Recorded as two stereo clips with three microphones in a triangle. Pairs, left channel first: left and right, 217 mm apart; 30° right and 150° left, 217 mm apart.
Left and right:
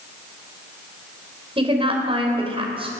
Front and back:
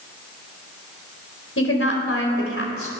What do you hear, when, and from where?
1.6 s a woman speaking: 25° right, 3.5 m